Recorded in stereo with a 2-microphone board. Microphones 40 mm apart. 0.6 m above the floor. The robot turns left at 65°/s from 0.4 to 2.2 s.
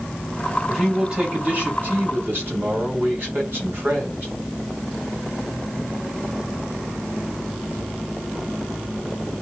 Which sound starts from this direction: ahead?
A man speaking, at 0.7 s.